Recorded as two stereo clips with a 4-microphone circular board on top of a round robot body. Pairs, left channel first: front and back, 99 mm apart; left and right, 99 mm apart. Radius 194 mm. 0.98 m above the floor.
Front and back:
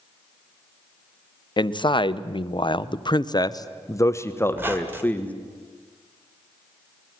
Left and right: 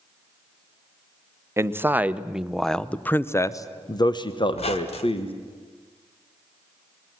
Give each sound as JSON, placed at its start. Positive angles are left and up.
{"t": 1.6, "sound": "a man speaking", "azimuth_deg": -30, "distance_m": 1.3}
{"t": 4.5, "sound": "a squeak", "azimuth_deg": 110, "distance_m": 1.3}